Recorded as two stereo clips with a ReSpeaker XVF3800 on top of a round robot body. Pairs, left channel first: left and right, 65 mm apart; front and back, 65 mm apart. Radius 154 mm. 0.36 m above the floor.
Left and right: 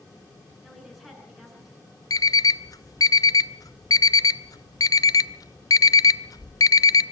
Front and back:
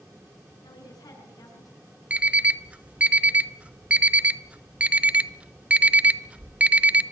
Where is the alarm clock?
110° left, 0.8 m.